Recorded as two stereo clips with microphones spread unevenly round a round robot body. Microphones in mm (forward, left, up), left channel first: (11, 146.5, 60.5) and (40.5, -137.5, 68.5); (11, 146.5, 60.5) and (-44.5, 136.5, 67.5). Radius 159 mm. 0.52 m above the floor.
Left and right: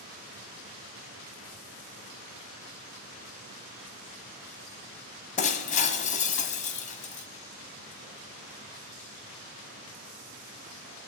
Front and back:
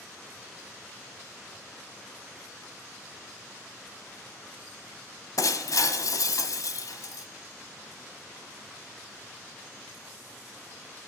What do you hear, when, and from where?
5.4 s breaking glass: 30° left, 1.3 m